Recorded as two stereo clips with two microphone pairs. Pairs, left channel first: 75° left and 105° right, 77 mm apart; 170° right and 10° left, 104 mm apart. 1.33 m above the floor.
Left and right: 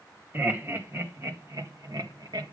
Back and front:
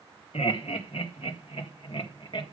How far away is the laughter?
About 2 m.